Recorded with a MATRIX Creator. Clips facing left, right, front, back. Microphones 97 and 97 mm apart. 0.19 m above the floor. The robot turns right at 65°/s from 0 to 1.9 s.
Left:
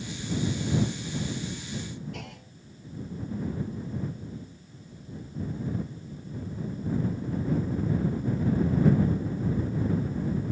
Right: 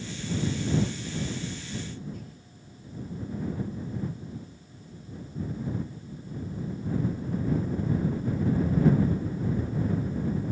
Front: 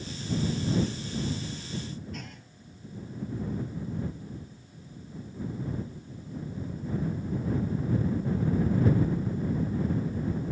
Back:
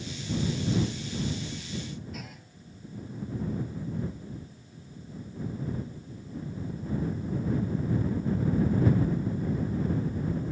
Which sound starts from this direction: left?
A clunk, at 2.1 s.